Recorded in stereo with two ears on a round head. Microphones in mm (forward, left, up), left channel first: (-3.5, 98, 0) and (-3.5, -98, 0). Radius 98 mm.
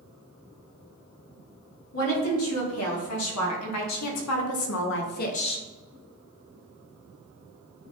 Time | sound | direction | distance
1.9 | a woman speaking | 70° left (ahead or behind) | 2.5 m